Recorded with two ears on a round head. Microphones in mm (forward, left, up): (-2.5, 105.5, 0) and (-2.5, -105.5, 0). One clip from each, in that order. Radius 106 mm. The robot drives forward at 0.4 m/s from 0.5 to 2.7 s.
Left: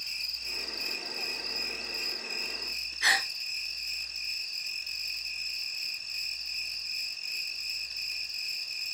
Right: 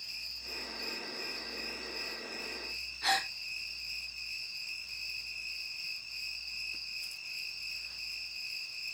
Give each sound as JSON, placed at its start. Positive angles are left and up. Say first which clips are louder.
{"t": 0.0, "sound": "an insect", "louder": "left 7 dB", "side_deg": 65, "distance_m": 4.0}
{"t": 3.0, "sound": "a gasp", "louder": "left 5 dB", "side_deg": 70, "distance_m": 5.5}